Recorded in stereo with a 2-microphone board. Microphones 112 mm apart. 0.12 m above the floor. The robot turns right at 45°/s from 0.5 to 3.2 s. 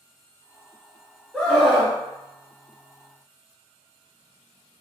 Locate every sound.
1.3 s a scream: 5° left (ahead or behind), 1.2 m; by 2.0 s 5° right (ahead or behind), 1.2 m